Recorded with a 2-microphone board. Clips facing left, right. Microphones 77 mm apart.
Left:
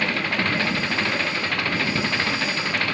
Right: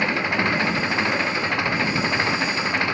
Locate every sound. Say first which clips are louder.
0.0 s an engine running: right 2 dB; 15° right (ahead or behind)